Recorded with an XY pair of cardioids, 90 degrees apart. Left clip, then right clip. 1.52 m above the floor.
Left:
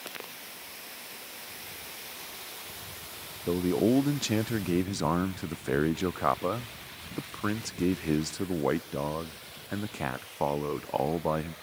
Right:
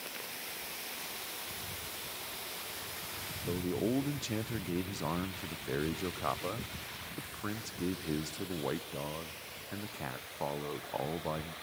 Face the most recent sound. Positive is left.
turn(degrees=65)